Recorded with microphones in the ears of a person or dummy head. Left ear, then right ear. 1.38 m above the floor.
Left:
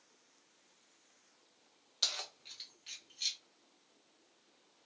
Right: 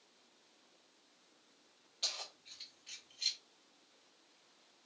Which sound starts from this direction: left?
Keys jangling, at 2.0 s.